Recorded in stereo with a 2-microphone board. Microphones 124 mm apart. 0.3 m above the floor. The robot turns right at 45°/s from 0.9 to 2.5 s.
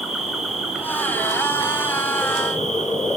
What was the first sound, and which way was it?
An insect, 5° right.